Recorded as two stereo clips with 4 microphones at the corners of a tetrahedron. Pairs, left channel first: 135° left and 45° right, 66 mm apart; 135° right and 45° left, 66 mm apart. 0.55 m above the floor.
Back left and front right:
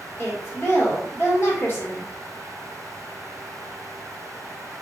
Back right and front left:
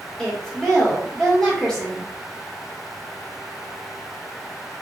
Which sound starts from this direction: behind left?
A woman speaking, at 0.2 s.